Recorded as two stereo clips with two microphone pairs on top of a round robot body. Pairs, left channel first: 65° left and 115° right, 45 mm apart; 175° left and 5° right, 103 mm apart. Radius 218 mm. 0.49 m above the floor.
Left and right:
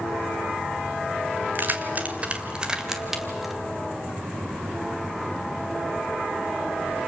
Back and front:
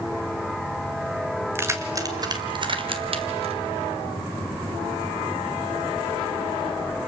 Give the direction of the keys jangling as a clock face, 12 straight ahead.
2 o'clock.